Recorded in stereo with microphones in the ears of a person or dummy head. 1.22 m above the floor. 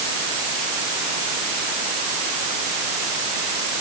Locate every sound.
Only background noise.